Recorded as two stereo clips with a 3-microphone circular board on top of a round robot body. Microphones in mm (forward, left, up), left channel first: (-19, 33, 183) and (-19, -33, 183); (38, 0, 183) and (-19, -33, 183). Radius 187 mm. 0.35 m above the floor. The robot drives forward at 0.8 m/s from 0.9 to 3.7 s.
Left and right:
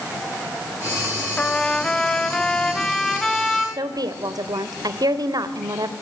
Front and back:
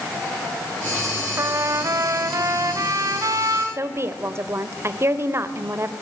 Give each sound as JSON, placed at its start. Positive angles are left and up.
{"t": 1.4, "sound": "a trumpet", "azimuth_deg": 160, "distance_m": 1.3}
{"t": 3.8, "sound": "a woman speaking", "azimuth_deg": -100, "distance_m": 2.0}